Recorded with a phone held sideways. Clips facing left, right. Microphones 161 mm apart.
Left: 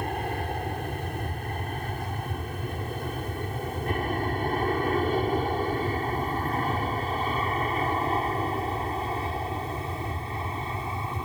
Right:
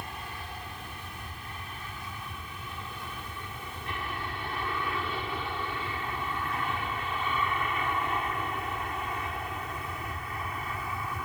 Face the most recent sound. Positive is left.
turn(degrees=25)  # may be behind; listen again after turning